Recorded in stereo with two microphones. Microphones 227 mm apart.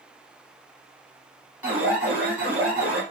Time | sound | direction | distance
1.6 | an alarm | 5° right (ahead or behind) | 1.7 m